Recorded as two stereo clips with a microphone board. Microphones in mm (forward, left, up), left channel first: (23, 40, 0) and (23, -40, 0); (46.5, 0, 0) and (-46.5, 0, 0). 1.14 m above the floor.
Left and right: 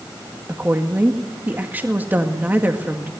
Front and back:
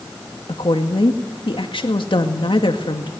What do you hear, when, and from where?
0.5 s a woman speaking: 20° right, 2.0 m